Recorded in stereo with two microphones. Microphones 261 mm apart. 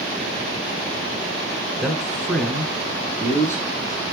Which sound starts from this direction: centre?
A man speaking, at 1.8 s.